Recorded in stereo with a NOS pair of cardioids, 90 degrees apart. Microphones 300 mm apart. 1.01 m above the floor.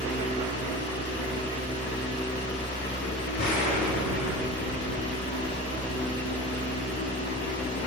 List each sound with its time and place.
0.0 s a fan: 40° left, 3.5 m
3.4 s an explosion: 65° left, 3 m